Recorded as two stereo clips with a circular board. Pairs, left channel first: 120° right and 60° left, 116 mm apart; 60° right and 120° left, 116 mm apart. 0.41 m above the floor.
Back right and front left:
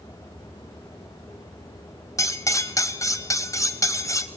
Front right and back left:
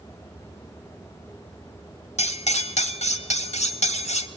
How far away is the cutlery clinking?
About 1.1 m.